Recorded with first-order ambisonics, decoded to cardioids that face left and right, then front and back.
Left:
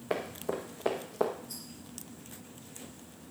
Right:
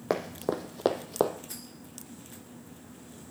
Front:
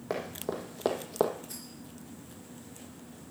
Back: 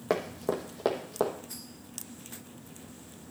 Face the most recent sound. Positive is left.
turn(degrees=-75)